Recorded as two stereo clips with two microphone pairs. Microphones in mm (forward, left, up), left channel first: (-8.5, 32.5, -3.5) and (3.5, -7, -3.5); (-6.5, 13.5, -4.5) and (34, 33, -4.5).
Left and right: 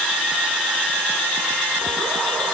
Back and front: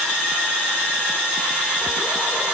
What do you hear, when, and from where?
Only background noise.